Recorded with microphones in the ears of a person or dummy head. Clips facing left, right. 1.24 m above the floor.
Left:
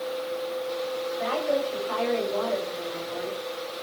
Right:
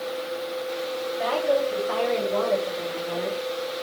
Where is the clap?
No clap in this recording.